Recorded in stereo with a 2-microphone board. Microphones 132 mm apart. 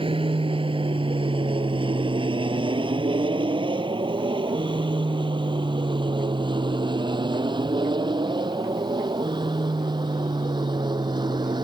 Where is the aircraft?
45° right (ahead or behind); by 11.6 s 35° right (ahead or behind).